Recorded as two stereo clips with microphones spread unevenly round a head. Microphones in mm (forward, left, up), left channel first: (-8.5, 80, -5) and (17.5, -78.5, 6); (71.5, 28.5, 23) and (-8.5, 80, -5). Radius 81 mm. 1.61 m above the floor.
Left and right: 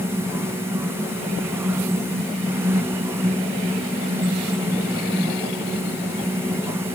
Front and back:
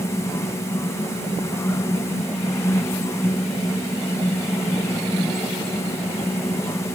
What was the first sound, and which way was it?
Only background noise.